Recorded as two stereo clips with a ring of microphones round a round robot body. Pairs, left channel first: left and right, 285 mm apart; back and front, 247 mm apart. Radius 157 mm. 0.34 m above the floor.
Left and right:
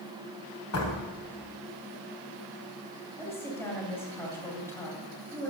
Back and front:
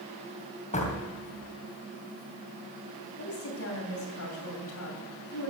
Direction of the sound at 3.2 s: 170° left.